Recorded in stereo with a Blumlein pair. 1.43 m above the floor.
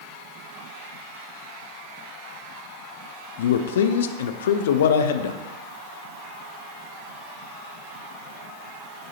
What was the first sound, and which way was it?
A man speaking, 60° left.